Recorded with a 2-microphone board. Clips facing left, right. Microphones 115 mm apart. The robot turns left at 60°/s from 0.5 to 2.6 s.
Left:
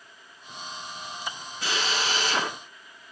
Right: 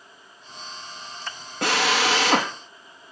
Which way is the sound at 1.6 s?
70° right.